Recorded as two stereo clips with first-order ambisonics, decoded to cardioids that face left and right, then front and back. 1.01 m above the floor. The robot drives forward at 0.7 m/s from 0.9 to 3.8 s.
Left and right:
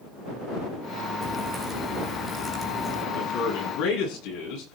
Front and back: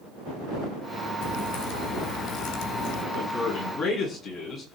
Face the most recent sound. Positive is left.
turn(degrees=70)